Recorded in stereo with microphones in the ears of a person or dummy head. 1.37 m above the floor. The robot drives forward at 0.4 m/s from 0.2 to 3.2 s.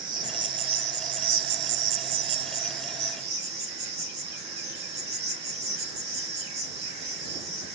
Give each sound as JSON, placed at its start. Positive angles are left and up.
{"t": 0.0, "sound": "an insect", "side_deg": -35, "distance_m": 0.9}